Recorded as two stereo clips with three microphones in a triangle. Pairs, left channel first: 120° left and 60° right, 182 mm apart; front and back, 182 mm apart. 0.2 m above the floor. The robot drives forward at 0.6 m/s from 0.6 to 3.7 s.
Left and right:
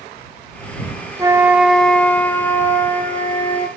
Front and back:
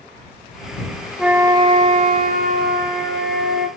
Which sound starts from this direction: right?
A flute, at 1.2 s.